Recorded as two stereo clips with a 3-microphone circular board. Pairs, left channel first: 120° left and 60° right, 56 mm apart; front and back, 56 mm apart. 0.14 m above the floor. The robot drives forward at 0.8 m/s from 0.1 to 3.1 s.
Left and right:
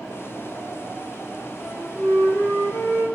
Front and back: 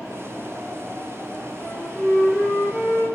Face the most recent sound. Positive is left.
turn(degrees=125)